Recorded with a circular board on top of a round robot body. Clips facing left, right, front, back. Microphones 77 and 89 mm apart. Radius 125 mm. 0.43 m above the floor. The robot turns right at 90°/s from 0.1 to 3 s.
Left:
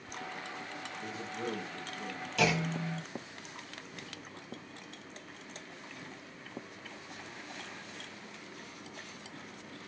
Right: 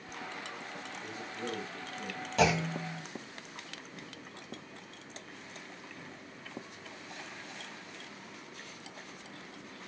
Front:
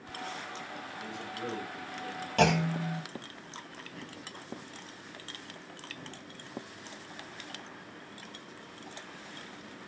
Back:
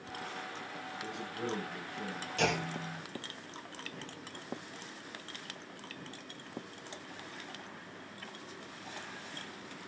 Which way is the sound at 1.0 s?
95° left.